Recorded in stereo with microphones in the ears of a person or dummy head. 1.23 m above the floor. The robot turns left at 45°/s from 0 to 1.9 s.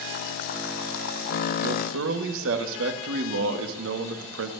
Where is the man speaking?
65° right (ahead or behind), 1.5 m; by 4.5 s 80° right, 1.5 m.